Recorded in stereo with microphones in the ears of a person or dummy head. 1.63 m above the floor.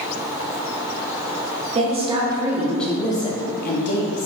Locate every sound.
1.8 s a woman speaking: 40° right (ahead or behind), 0.8 m; by 4.3 s 60° left (ahead or behind), 0.8 m